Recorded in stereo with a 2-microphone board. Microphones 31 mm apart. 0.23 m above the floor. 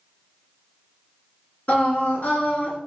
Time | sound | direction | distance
1.7 | singing | 50° left (ahead or behind) | 1.6 m